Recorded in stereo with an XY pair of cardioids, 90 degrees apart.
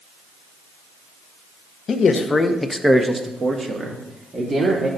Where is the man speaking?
60° left, 1.1 m; by 4.9 s 55° right, 3 m.